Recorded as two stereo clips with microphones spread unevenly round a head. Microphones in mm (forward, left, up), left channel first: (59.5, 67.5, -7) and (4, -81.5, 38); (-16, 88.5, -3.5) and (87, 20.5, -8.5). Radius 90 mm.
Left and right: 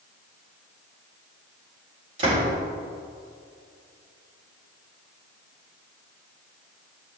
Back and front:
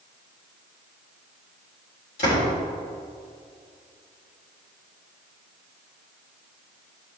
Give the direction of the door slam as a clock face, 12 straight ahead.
5 o'clock.